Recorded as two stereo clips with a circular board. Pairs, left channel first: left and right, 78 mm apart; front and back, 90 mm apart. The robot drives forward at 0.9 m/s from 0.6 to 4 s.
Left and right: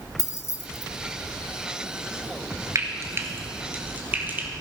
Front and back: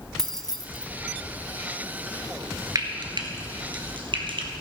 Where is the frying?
135° right, 1.1 m; by 4.5 s 160° right, 2 m.